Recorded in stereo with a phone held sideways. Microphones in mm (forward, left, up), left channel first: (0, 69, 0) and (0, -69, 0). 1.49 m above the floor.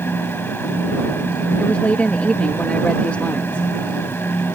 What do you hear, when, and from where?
0.0 s a fan: 15° left (ahead or behind)
1.6 s a woman speaking: 10° left (ahead or behind)